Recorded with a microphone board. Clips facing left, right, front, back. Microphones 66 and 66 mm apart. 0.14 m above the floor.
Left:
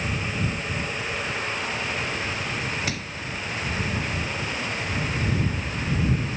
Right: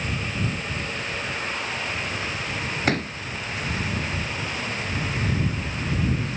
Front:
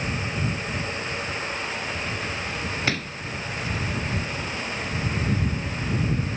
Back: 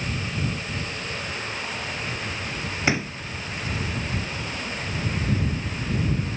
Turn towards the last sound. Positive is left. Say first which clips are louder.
# right 7 dB, back 6 dB
turn(degrees=-110)